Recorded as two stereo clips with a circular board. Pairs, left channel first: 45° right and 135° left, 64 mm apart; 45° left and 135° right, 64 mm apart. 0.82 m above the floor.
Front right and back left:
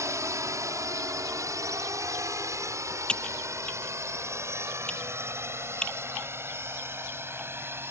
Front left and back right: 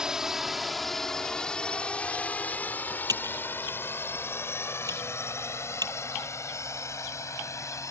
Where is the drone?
150° left; by 7.9 s 85° left.